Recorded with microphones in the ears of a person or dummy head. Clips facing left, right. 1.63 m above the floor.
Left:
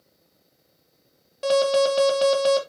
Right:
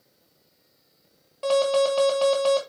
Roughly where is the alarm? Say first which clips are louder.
Left 1 dB; left.